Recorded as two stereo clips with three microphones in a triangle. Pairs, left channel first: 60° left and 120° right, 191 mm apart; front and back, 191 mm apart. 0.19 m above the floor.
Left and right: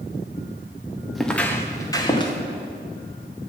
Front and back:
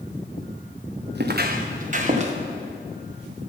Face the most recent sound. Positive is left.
turn(degrees=125)